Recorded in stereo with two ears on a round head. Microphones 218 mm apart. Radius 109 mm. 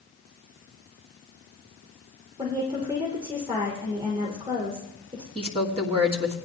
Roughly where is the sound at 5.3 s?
Right.